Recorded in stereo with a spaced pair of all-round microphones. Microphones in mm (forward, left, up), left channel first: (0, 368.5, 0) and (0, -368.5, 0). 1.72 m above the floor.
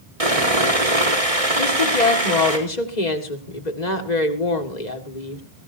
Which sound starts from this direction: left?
A woman speaking, at 1.6 s.